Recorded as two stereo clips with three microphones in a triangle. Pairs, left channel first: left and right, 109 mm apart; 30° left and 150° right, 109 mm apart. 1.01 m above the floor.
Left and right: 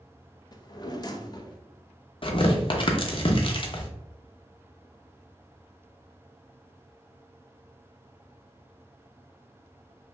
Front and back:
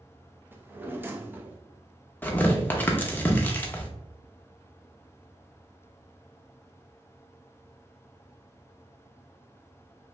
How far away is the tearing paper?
About 0.7 m.